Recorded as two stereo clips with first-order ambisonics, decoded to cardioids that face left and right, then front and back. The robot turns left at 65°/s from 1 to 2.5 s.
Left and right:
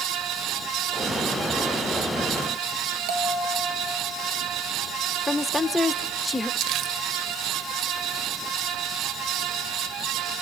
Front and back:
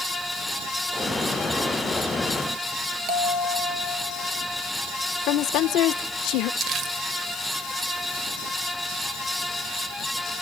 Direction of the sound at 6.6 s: 125° right.